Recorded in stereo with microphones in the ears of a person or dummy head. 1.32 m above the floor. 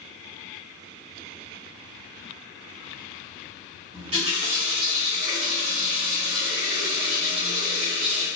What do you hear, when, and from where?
3.9 s a running tap: 35° right (ahead or behind), 1.1 m